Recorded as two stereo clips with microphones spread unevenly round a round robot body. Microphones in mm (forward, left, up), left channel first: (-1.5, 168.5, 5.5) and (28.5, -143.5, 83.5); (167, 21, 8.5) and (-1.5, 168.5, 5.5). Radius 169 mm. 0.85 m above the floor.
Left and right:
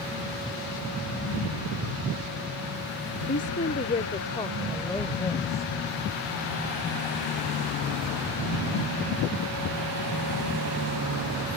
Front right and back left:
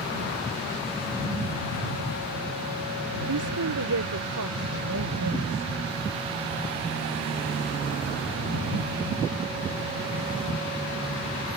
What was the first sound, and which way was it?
A woman speaking, 155° left.